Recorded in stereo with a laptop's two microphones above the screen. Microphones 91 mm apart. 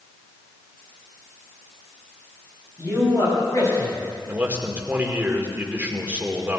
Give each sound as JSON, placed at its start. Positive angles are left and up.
{"t": 2.8, "sound": "a man speaking", "side_deg": 40, "distance_m": 6.5}
{"t": 4.3, "sound": "a man speaking", "side_deg": -20, "distance_m": 2.0}